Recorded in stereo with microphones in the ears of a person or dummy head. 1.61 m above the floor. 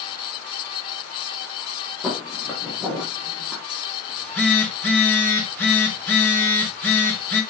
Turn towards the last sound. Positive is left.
turn(degrees=15)  # may be behind; listen again after turning